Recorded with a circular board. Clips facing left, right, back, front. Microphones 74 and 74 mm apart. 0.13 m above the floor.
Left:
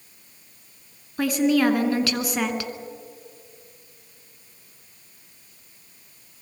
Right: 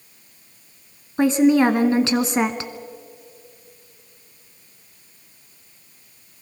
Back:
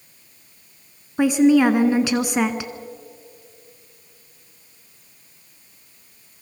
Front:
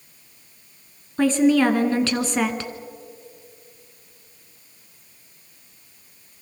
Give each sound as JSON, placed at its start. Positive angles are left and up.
{"t": 1.2, "sound": "a woman speaking", "azimuth_deg": -115, "distance_m": 1.3}